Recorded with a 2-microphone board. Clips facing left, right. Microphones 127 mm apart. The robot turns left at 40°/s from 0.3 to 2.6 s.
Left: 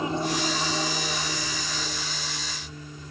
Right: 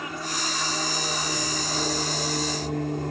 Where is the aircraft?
25° left (ahead or behind); by 3.1 s 65° right (ahead or behind).